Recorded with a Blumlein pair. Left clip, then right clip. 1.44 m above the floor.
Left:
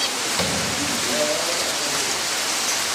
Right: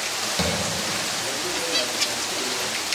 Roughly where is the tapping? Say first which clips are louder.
Even; ahead.